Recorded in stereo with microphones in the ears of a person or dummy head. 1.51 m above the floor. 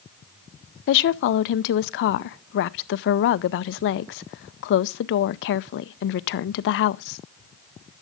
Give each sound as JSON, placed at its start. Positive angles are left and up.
{"t": 0.9, "sound": "a woman speaking", "side_deg": 60, "distance_m": 0.5}